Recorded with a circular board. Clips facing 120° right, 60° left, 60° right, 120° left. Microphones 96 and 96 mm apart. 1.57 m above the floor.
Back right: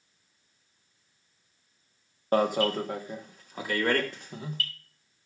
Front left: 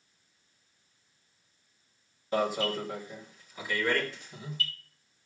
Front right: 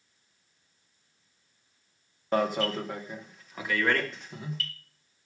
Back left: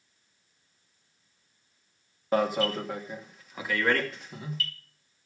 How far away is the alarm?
About 1.3 m.